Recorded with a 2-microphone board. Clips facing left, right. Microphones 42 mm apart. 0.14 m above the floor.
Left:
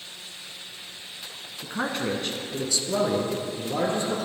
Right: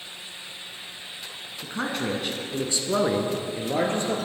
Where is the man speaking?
15° left (ahead or behind), 1.3 m; by 4.3 s 50° right (ahead or behind), 3 m.